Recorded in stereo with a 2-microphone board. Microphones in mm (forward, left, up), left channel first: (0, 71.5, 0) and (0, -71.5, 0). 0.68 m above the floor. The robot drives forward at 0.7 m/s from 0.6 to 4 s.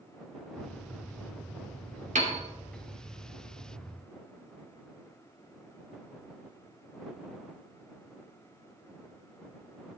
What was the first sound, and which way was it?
A piano, 65° right (ahead or behind).